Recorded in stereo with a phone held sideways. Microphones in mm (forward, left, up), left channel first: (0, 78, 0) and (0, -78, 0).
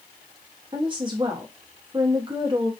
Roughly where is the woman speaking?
Right.